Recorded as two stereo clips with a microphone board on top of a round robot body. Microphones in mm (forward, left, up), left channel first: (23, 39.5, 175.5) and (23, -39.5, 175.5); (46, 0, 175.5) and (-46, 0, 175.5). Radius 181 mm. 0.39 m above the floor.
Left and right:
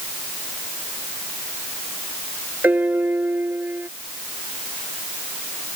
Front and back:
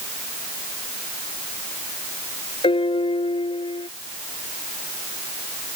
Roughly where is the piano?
Ahead.